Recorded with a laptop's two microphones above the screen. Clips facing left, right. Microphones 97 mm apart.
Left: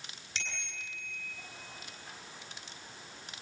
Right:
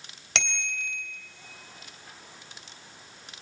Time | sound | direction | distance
0.3 | a bicycle bell | 85° right | 3 m